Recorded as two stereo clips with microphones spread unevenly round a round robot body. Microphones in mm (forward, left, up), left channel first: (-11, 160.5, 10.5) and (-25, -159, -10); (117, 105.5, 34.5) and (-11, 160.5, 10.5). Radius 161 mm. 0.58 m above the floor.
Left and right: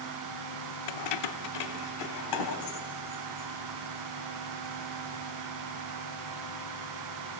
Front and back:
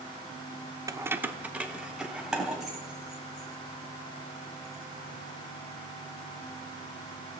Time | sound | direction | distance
0.9 | keys jangling | 95° left | 0.6 m